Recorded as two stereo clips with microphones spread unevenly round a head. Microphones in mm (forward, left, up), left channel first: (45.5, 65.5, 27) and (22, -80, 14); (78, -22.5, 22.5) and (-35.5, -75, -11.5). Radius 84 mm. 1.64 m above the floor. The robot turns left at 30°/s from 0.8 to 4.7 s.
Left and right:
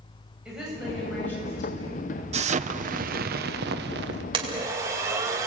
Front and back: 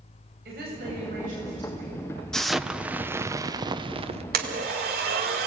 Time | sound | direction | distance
0.5 | a woman speaking | 175° left | 9 m
2.3 | an explosion | 55° right | 0.8 m
4.3 | a blender | 165° right | 2 m